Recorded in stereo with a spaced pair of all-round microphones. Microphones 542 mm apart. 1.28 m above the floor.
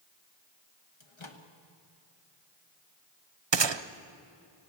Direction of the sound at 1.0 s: 60° left (ahead or behind).